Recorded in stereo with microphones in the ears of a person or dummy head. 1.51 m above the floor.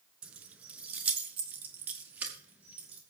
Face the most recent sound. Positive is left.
turn(degrees=-15)  # may be behind; listen again after turning